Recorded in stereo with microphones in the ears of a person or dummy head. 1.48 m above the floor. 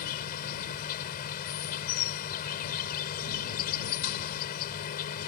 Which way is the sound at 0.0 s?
50° left (ahead or behind).